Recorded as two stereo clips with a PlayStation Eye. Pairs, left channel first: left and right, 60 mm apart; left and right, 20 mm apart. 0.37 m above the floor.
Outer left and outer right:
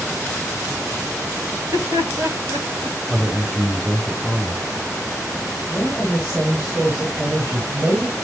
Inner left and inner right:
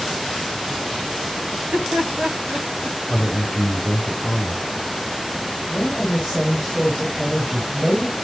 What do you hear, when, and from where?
1.5 s laughter: 65° right (ahead or behind), 3 m
3.1 s a man speaking: 5° left (ahead or behind), 8 m
5.7 s a woman speaking: 10° right (ahead or behind), 5.5 m